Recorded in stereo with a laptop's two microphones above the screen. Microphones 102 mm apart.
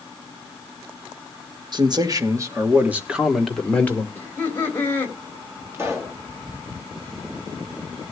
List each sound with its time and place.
1.7 s a man speaking: 45° right (ahead or behind), 1.3 m; by 4.0 s 20° left (ahead or behind), 1.2 m
4.2 s laughter: 20° left (ahead or behind), 2.5 m
5.7 s a pop: 25° right (ahead or behind), 2.5 m